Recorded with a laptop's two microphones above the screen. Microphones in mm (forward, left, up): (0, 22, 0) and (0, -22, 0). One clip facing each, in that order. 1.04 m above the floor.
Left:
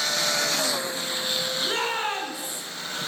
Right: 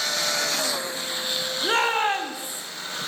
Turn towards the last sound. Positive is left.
turn(degrees=-30)  # may be behind; listen again after turning